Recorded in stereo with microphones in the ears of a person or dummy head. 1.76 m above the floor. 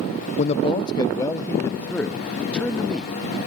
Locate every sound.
0.4 s a man speaking: 35° left (ahead or behind); by 3.4 s centre (ahead or behind)